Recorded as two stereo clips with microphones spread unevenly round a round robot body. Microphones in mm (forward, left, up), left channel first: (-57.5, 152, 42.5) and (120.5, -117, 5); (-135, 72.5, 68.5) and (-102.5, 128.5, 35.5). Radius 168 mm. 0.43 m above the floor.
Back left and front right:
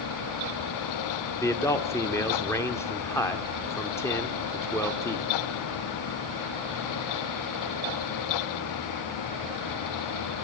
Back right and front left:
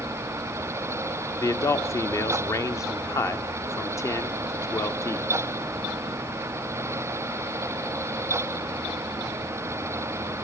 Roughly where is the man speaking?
Behind right.